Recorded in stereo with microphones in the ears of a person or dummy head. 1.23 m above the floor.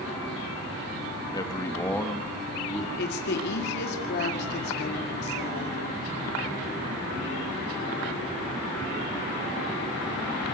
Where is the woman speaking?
65° left (ahead or behind), 2 m.